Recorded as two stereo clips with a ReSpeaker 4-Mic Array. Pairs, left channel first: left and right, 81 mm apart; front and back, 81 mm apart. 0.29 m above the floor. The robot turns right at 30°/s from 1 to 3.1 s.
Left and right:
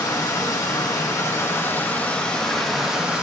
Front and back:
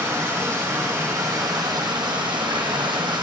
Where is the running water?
130° left, 2.5 m; by 3.2 s 165° right, 2.5 m.